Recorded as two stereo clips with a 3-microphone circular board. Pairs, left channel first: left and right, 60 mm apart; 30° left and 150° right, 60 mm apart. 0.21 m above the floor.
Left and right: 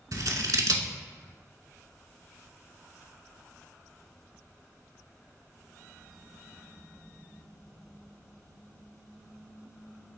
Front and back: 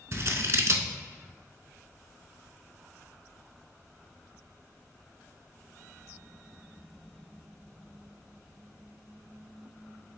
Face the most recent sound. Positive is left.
turn(degrees=-110)